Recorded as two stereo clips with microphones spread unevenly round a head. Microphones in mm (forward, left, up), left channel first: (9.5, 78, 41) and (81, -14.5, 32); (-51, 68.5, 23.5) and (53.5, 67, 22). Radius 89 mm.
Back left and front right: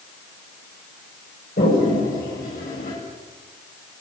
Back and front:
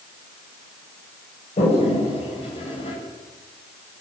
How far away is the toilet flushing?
About 10 m.